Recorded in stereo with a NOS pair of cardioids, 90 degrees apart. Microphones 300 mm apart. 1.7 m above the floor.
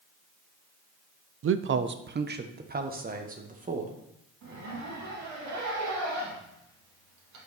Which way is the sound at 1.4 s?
50° right.